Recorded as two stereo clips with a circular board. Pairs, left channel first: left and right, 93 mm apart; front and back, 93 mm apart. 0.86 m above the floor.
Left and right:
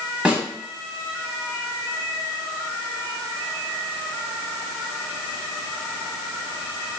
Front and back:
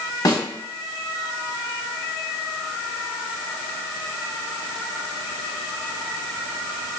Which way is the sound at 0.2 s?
15° right.